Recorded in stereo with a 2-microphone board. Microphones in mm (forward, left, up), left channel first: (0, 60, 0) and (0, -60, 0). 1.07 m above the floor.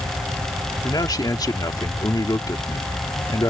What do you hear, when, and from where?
0.8 s a man speaking: 35° left (ahead or behind)